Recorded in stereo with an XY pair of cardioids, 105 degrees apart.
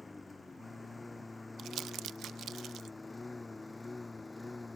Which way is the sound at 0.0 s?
20° left.